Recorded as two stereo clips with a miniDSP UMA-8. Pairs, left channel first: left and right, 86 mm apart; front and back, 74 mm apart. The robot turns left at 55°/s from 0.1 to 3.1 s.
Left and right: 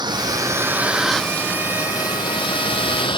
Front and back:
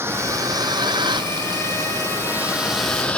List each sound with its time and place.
0.0 s a vehicle: 125° right; by 3.2 s 75° left